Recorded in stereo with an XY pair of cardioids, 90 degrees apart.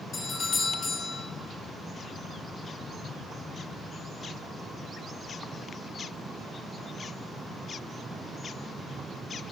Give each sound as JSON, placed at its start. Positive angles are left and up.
{"t": 0.1, "sound": "a doorbell", "azimuth_deg": 45, "distance_m": 4.5}